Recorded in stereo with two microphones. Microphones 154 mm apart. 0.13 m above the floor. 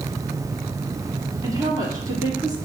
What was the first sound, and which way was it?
A woman speaking, 25° right (ahead or behind).